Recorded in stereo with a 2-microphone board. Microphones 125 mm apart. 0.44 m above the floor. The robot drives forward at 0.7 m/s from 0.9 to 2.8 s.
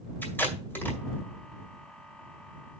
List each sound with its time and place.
0.2 s tape being pulled: 15° left (ahead or behind), 2 m